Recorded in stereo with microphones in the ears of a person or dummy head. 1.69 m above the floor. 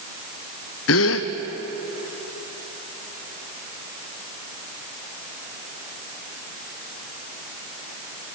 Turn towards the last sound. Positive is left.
turn(degrees=70)  # may be behind; listen again after turning